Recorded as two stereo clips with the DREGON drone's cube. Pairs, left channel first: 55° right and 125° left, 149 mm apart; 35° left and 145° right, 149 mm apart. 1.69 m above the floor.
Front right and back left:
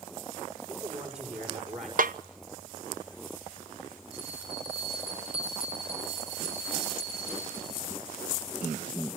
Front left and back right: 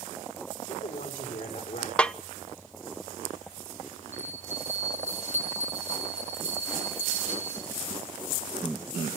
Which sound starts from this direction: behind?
A bell, at 4.1 s.